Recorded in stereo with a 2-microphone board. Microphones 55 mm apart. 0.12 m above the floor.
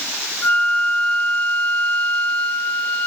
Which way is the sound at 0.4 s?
25° left (ahead or behind).